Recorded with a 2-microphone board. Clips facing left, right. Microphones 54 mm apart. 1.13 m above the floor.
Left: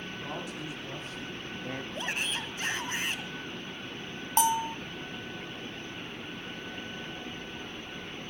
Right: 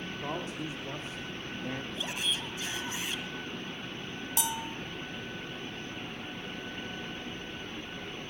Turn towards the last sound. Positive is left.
turn(degrees=45)  # may be behind; listen again after turning